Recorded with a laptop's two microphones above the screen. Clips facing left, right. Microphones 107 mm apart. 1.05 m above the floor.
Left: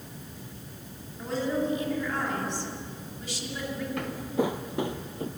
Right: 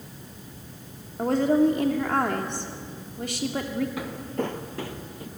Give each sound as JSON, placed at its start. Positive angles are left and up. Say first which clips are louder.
{"t": 1.2, "sound": "a woman speaking", "louder": "right 8 dB", "side_deg": -60, "distance_m": 2.5}
{"t": 4.0, "sound": "footsteps", "louder": "left 2 dB", "side_deg": -5, "distance_m": 1.1}